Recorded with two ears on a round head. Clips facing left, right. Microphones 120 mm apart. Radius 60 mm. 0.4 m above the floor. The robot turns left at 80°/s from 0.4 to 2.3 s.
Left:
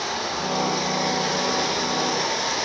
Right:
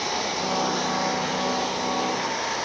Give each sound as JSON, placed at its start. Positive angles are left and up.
{"t": 0.0, "sound": "running water", "azimuth_deg": -165, "distance_m": 5.5}